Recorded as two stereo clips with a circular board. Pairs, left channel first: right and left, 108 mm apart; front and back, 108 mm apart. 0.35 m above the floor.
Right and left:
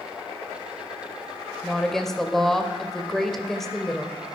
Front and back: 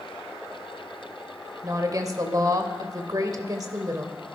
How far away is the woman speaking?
About 1.2 m.